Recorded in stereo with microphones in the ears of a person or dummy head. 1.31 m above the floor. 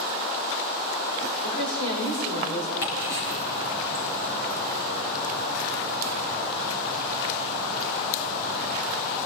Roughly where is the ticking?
Left.